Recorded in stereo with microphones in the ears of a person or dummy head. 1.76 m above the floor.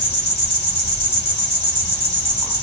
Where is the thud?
No thud in this recording.